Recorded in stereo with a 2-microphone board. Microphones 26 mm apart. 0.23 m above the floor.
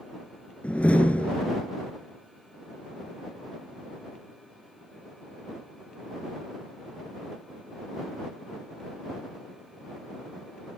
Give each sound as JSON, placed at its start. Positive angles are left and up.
{"t": 0.6, "sound": "a door slam", "side_deg": 75}